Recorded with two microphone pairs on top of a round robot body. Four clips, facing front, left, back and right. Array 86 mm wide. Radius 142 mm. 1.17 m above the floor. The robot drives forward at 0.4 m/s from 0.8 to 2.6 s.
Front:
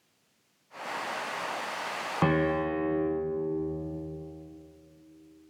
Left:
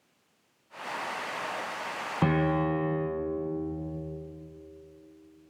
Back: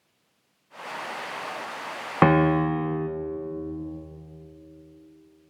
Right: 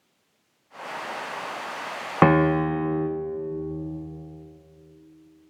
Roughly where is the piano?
Behind right.